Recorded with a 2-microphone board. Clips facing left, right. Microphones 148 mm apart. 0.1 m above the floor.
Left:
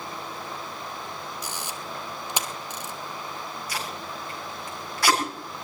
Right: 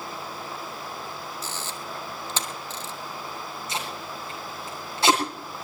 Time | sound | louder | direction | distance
1.4 | a camera shutter | even | 15° left (ahead or behind) | 1.5 m
3.7 | tape being pulled | right 2 dB | 25° right (ahead or behind) | 7 m